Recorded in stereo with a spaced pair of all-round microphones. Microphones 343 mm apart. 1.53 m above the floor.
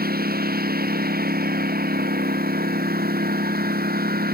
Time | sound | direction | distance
0.0 | a lawn mower | 25° right (ahead or behind) | ?